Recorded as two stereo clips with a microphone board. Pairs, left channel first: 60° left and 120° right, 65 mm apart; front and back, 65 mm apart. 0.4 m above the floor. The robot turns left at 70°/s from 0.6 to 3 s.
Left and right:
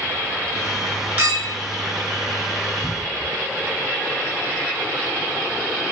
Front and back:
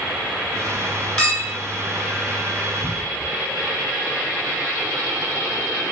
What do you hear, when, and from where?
1.2 s a clink: 60° right, 1.1 m; by 1.6 s 85° right, 1.1 m
2.8 s a cupboard door: 5° right, 1.4 m; by 3.3 s 20° right, 1.4 m